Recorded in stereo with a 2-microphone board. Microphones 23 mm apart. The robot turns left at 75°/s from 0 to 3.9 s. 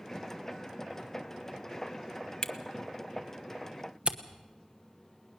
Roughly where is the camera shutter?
Left.